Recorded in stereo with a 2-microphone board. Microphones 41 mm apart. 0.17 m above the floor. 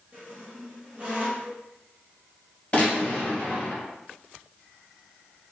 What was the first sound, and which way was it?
A squeak, 35° right (ahead or behind).